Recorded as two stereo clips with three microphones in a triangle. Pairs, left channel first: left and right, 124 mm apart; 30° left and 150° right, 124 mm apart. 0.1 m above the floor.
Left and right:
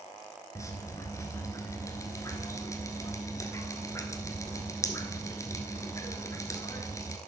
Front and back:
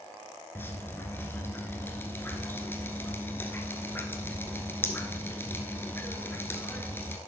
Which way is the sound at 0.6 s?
75° left.